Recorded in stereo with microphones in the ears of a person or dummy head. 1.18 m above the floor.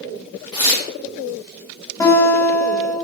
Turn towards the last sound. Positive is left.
turn(degrees=10)  # may be behind; listen again after turning